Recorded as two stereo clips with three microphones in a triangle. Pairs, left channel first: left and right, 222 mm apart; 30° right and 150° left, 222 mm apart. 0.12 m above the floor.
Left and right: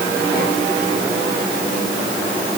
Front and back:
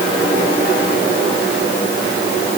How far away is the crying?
No crying in this recording.